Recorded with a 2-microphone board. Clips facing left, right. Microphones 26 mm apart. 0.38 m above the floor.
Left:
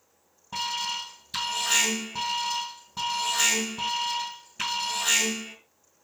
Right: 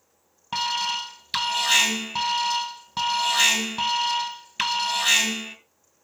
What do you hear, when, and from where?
0.5 s an alarm: 60° right (ahead or behind), 2.5 m